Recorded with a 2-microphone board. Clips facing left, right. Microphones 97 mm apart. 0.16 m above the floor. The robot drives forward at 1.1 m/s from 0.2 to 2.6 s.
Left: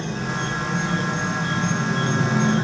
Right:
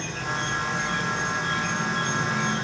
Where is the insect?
20° left (ahead or behind), 6.5 m; by 2.7 s 30° left (ahead or behind), 4 m.